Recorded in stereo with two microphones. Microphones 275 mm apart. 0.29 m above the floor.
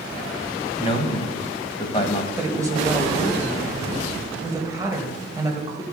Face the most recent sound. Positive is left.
turn(degrees=-10)  # may be behind; listen again after turning